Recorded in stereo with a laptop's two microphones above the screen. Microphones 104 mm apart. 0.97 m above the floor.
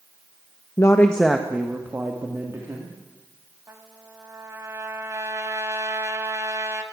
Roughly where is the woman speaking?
Left.